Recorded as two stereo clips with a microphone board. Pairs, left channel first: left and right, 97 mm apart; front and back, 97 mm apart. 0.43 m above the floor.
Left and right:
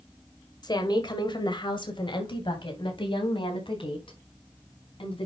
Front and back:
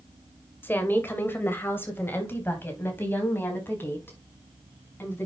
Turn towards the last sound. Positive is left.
turn(degrees=70)